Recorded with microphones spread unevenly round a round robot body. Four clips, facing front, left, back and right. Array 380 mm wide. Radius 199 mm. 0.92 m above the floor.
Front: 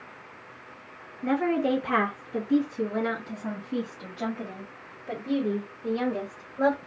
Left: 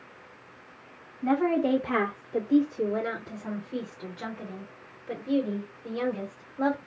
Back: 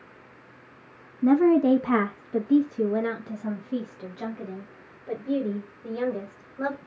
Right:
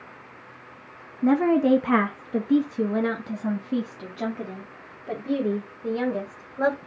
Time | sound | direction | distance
1.2 | a woman speaking | 140° right | 0.8 m